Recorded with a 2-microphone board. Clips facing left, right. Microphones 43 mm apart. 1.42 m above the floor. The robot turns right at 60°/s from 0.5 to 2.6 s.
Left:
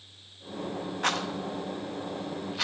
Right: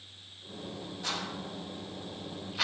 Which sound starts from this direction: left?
A rattle, at 1.0 s.